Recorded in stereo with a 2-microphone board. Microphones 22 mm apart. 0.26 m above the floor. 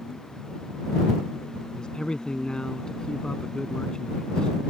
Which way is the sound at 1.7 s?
45° left (ahead or behind).